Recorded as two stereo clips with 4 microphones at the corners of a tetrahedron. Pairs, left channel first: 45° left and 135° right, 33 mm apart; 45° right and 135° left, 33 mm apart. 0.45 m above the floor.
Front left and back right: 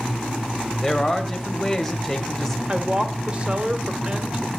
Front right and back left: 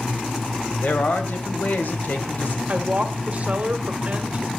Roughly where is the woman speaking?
Behind.